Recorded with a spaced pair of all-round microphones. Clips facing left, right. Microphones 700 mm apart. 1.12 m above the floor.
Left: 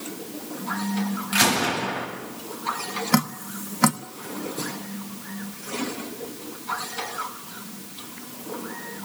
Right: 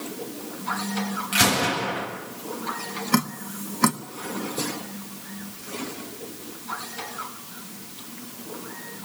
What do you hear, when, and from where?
1.3 s a gunshot: 55° right (ahead or behind), 8 m
3.1 s dripping: 20° left (ahead or behind), 0.9 m